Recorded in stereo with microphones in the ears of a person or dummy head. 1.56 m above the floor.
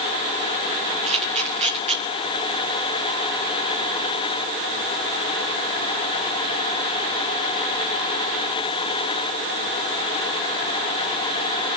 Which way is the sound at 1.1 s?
35° right (ahead or behind).